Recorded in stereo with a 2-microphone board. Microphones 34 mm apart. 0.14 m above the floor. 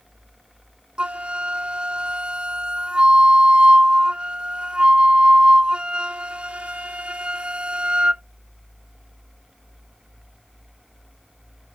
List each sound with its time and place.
1.0 s a flute: 35° right (ahead or behind)